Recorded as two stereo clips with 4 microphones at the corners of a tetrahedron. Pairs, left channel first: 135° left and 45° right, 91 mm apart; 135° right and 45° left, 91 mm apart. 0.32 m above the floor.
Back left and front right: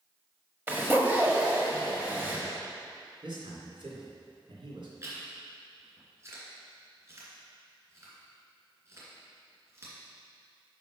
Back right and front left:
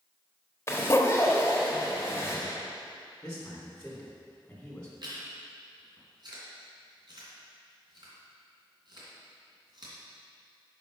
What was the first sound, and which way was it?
A zipper, 95° right.